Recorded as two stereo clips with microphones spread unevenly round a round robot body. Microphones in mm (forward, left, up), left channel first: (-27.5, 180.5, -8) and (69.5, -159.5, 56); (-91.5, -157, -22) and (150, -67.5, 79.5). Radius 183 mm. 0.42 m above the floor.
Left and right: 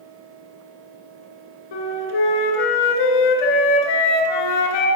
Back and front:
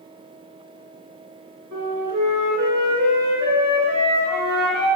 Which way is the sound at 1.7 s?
85° left.